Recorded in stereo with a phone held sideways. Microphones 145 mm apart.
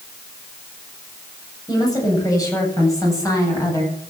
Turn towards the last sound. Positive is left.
turn(degrees=20)  # may be behind; listen again after turning